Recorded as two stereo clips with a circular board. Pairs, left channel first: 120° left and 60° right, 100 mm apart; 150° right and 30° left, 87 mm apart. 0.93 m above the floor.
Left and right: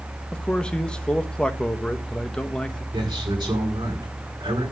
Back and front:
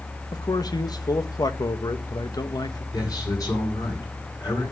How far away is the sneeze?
I don't hear a sneeze.